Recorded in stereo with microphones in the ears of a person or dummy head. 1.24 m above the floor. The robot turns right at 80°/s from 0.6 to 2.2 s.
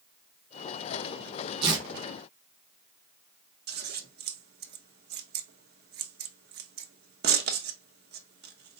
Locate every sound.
1.6 s tearing paper: 35° right (ahead or behind), 1.4 m; by 1.9 s 20° right (ahead or behind), 1.4 m
3.7 s scissors: 55° right (ahead or behind), 0.8 m